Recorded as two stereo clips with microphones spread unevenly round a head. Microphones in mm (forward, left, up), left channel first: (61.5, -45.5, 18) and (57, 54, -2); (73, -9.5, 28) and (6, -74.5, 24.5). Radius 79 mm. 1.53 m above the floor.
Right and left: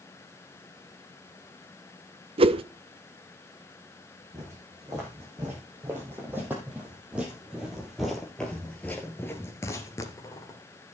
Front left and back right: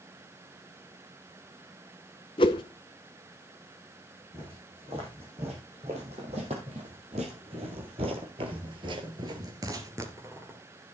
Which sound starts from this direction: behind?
Footsteps, at 4.3 s.